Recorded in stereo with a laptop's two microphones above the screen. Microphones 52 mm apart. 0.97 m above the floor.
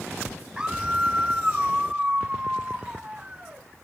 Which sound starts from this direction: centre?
A scream, at 0.6 s.